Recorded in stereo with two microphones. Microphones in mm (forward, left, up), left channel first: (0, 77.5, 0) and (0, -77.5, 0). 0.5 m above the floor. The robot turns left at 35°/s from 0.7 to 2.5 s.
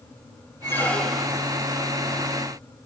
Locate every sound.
0.6 s a squeak: 15° left (ahead or behind), 1.0 m; by 1.4 s 10° right (ahead or behind), 1.0 m